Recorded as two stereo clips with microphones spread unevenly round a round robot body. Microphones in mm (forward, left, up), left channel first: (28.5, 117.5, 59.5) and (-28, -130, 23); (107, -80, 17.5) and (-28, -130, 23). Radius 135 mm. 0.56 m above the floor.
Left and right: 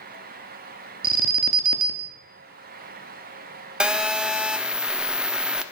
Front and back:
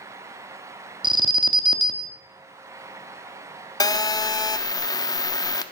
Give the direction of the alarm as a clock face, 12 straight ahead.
4 o'clock.